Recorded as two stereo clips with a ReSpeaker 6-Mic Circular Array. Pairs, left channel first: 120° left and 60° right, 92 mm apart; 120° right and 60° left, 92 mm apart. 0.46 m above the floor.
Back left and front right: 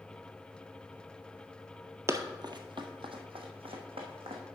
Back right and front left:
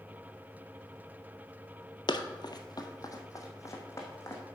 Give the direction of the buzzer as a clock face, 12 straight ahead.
I don't hear a buzzer.